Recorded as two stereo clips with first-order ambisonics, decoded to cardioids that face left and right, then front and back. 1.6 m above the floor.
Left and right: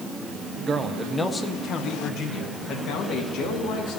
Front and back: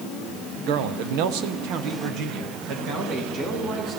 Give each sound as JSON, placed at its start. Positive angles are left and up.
{"t": 0.7, "sound": "a man speaking", "azimuth_deg": -155, "distance_m": 0.9}